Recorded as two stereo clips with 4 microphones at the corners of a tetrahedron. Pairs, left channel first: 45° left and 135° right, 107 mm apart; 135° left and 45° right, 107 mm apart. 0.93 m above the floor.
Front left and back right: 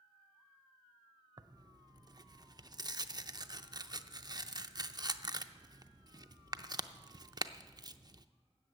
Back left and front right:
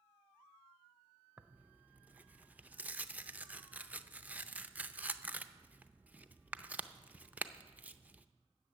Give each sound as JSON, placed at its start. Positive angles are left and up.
{"t": 1.4, "sound": "tearing paper", "azimuth_deg": -110, "distance_m": 0.5}